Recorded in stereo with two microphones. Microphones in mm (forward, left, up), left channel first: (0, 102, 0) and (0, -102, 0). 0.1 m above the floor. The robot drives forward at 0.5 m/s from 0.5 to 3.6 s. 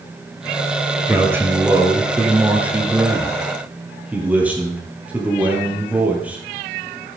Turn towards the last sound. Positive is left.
turn(degrees=-5)  # may be behind; listen again after turning